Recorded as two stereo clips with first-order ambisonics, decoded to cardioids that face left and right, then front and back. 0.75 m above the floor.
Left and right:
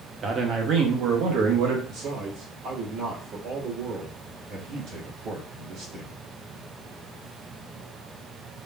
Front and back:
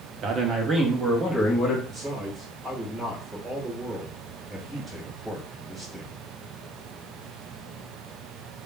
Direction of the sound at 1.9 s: 90° right.